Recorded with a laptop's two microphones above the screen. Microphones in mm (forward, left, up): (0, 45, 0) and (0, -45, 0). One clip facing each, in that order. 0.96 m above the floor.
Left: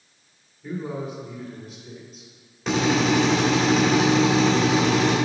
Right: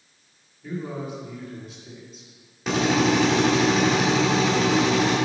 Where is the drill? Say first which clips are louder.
Even; 5° right (ahead or behind), 3 m.